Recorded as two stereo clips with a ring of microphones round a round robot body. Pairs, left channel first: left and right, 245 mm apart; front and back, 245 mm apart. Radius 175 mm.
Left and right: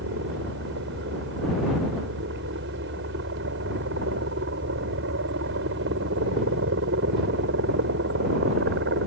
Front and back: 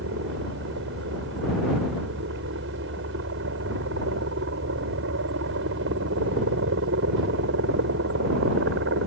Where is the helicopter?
135° right.